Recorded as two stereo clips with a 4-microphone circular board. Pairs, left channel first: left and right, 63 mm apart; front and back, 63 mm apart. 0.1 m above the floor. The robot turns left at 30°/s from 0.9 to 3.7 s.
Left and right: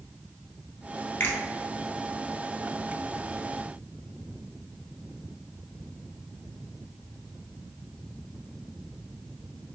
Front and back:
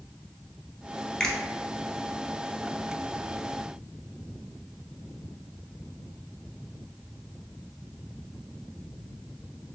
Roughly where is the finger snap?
Left.